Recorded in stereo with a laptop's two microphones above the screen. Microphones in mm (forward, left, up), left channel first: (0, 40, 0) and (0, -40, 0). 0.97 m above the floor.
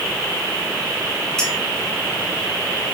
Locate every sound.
1.4 s a clink: 10° left (ahead or behind), 3.5 m